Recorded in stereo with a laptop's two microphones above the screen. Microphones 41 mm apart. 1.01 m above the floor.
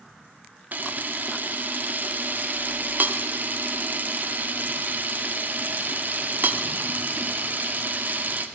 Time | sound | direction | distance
0.7 | a camera shutter | 45° right (ahead or behind) | 0.9 m